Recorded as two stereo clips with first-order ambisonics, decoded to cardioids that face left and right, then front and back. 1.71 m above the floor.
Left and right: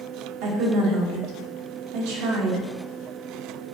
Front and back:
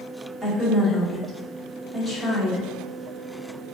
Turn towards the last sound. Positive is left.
turn(degrees=-90)